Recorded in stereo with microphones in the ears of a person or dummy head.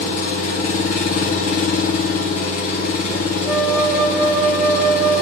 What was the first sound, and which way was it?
An engine running, 45° left (ahead or behind).